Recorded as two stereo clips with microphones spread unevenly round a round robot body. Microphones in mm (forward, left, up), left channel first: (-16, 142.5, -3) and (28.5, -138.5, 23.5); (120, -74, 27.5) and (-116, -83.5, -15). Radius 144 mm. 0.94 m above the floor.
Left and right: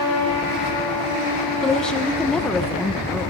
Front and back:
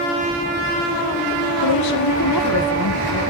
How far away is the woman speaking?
About 1.3 m.